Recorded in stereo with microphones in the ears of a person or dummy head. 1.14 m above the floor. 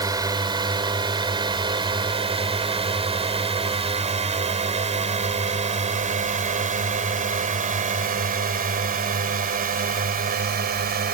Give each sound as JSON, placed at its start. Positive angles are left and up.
{"t": 0.0, "sound": "a drone", "side_deg": -20}